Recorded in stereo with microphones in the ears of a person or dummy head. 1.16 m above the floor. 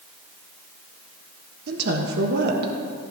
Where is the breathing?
I don't hear breathing.